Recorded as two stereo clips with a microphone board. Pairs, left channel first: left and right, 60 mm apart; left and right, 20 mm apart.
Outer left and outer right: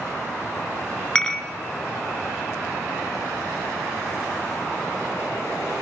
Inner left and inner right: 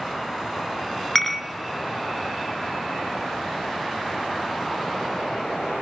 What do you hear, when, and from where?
1.1 s dishes clattering: 20° left (ahead or behind), 3.5 m